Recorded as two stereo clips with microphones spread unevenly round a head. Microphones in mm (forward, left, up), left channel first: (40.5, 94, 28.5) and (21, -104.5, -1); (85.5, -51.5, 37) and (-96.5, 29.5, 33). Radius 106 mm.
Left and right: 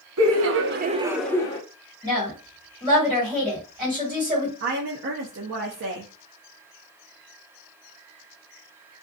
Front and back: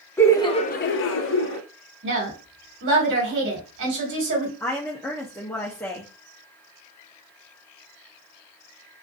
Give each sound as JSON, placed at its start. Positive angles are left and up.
{"t": 0.2, "sound": "laughter", "azimuth_deg": -105, "distance_m": 0.8}
{"t": 2.0, "sound": "a woman speaking", "azimuth_deg": -165, "distance_m": 1.5}
{"t": 4.6, "sound": "a woman speaking", "azimuth_deg": -100, "distance_m": 0.6}